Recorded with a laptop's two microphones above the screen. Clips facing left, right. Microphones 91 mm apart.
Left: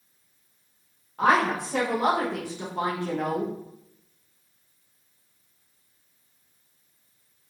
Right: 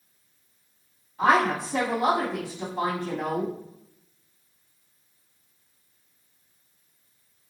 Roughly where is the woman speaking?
Left.